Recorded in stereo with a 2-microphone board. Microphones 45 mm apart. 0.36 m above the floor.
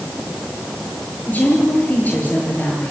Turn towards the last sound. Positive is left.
turn(degrees=40)  # may be behind; listen again after turning